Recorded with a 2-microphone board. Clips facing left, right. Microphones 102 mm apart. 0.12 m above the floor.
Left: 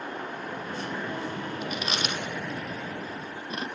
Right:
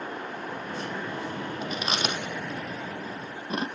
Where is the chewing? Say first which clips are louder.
Right 3 dB; 30° right (ahead or behind), 3 m.